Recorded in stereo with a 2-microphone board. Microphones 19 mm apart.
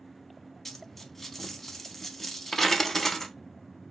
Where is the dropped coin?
5° left (ahead or behind), 0.6 m.